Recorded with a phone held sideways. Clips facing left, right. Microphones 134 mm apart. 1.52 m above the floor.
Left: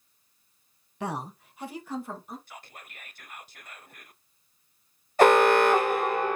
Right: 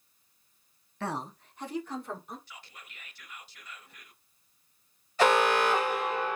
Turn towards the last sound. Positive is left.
turn(degrees=50)  # may be behind; listen again after turning